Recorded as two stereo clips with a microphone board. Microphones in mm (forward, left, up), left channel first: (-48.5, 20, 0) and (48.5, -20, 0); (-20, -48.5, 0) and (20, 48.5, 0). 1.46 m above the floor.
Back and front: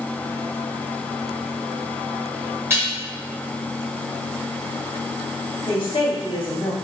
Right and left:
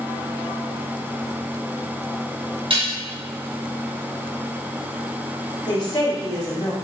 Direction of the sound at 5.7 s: 165° right.